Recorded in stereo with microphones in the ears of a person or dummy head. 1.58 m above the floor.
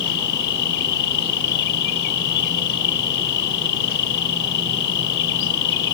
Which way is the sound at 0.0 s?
70° left (ahead or behind).